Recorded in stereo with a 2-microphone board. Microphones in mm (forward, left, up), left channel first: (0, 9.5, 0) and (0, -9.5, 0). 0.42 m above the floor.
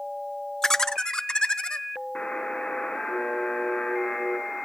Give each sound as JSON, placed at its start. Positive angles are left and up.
{"t": 0.6, "sound": "laughter", "side_deg": 30, "distance_m": 0.9}
{"t": 2.1, "sound": "a buzzer", "side_deg": 75, "distance_m": 4.0}